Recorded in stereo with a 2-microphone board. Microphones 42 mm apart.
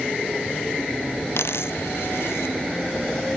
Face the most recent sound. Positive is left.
turn(degrees=75)  # may be behind; listen again after turning